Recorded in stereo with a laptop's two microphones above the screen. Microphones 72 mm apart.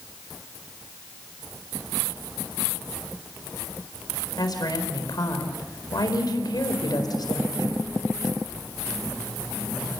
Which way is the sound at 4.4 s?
70° left (ahead or behind).